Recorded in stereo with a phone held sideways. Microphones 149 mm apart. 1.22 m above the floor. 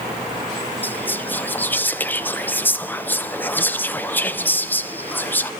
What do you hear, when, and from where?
0.8 s whispering: 10° left (ahead or behind), 0.5 m